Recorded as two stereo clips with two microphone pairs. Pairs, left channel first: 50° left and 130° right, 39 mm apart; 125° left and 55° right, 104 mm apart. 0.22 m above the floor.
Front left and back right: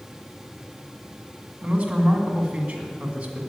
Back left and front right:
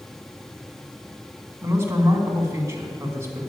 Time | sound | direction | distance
1.6 | a man speaking | 105° right | 1.9 m